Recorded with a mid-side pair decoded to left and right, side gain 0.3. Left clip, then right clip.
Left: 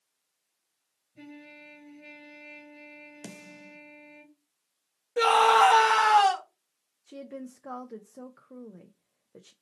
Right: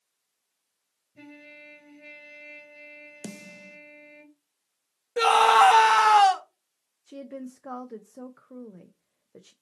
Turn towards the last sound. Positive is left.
turn(degrees=-15)